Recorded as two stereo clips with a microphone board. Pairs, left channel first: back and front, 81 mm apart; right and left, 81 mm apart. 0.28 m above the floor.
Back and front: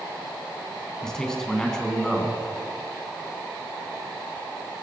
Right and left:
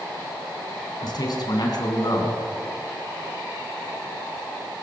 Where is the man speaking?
100° right, 3 m.